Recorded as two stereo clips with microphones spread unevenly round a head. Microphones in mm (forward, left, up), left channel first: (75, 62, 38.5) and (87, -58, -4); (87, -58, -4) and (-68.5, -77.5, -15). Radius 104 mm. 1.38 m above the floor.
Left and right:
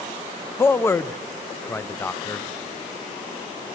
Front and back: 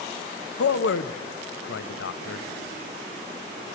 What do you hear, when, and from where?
0.6 s a man speaking: 20° left, 0.6 m